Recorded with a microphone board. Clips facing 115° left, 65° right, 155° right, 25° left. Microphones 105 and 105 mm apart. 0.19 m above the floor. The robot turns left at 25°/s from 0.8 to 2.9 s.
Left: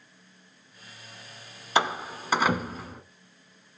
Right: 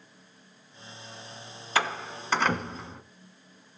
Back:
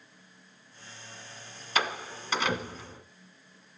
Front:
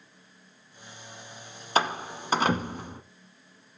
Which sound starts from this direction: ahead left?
A door slam, at 1.8 s.